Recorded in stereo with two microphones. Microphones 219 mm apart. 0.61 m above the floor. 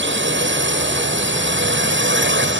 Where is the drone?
60° right (ahead or behind).